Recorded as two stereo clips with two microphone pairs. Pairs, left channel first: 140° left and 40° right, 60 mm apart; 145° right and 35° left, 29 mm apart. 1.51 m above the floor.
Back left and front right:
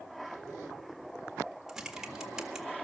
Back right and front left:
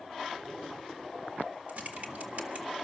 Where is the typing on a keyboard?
40° left, 1.7 m.